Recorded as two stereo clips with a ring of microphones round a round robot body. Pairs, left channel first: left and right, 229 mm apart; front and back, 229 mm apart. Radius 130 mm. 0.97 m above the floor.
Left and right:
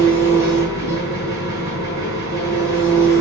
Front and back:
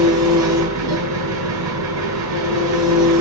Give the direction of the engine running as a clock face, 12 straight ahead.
6 o'clock.